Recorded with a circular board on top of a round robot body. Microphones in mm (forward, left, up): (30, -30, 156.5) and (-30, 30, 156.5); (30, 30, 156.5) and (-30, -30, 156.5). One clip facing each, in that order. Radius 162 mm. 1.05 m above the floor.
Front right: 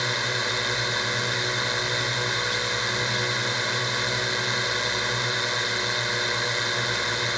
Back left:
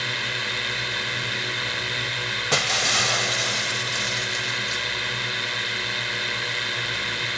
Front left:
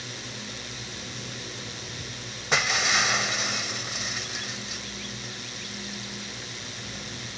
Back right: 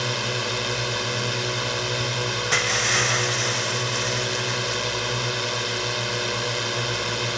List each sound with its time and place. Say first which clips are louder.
0.0 s a drone: front right 2 dB, back right 13 dB; 115° right
2.5 s breaking glass: back left 3 dB, front left 1 dB; 130° left